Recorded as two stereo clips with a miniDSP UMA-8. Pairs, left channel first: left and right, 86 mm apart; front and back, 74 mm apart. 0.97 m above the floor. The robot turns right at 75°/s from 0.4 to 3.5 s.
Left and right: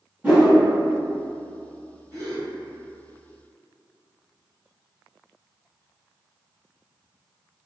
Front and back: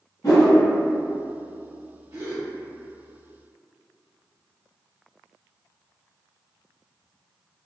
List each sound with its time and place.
0.2 s a whoosh: 20° right, 1.7 m; by 0.5 s 10° right, 1.7 m
2.1 s a gasp: 140° left, 1.6 m; by 2.5 s 165° left, 1.6 m